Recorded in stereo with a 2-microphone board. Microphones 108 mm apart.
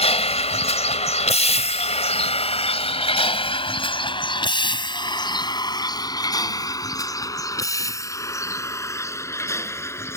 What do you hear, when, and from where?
0.0 s a vehicle: 70° left (ahead or behind); by 10.2 s 25° left (ahead or behind)